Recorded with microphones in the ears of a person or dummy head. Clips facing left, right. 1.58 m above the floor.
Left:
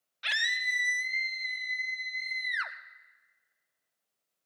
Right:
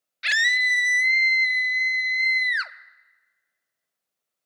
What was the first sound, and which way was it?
A scream, 30° right (ahead or behind).